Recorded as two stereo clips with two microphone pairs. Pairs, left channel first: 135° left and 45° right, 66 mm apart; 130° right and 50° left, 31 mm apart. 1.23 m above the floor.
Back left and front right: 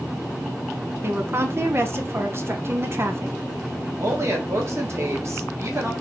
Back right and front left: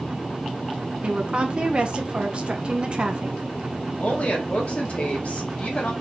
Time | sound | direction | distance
1.0 | a woman speaking | straight ahead | 1.0 m
4.0 | a woman speaking | 90° right | 1.7 m